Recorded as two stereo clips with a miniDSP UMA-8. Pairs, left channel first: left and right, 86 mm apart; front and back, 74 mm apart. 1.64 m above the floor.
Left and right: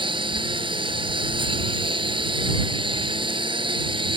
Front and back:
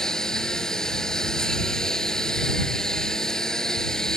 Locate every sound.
0.0 s a lawn mower: 80° right